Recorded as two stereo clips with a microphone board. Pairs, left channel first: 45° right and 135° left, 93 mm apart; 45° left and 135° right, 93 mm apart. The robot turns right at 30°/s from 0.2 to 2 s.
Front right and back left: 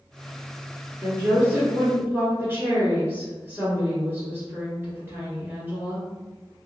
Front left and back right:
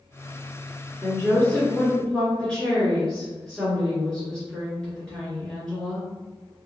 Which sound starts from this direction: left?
A woman speaking, at 1.0 s.